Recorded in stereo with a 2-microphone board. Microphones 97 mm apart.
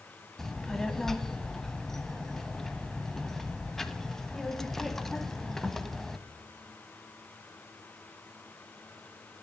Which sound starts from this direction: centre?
A child speaking, at 0.4 s.